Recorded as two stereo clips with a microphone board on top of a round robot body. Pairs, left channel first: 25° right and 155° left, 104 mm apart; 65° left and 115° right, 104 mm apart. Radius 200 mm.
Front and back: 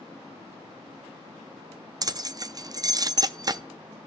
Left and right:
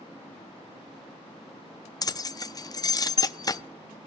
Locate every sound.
2.0 s keys jangling: 115° left, 0.5 m